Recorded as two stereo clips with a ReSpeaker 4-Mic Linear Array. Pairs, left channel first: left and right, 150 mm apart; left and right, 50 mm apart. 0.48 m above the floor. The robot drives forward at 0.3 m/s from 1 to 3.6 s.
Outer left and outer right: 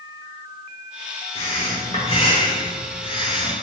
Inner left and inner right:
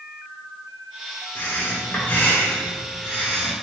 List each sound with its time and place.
1.4 s breathing: 40° left (ahead or behind), 1.1 m; by 3.5 s 30° left (ahead or behind), 1.3 m